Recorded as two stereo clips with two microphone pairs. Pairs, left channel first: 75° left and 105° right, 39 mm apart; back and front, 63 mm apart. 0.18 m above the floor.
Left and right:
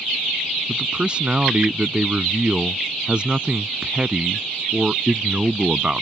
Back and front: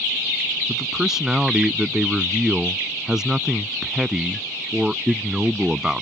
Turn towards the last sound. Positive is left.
turn(degrees=-70)